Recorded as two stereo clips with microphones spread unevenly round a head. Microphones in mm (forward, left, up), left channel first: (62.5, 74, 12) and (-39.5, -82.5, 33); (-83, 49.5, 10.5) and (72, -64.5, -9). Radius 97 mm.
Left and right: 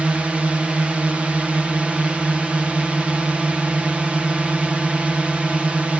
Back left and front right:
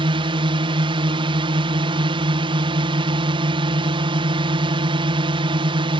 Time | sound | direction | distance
0.0 | a drone | 35° right | ?